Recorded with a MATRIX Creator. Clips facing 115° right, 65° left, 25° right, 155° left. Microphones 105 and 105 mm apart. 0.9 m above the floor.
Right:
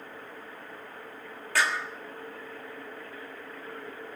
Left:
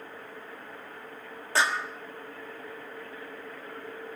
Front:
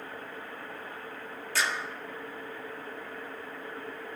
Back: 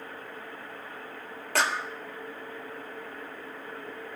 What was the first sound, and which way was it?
A clap, 130° left.